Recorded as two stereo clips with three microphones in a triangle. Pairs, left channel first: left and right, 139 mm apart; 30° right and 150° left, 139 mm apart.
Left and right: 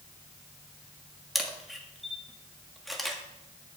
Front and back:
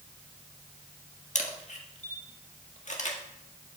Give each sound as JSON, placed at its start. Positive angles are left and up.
{"t": 1.4, "sound": "a camera shutter", "azimuth_deg": 0, "distance_m": 1.4}